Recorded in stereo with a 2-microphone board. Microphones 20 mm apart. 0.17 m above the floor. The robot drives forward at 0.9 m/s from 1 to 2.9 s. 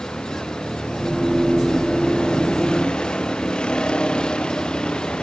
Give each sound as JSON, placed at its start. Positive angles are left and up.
{"t": 0.0, "sound": "a vehicle", "side_deg": 65}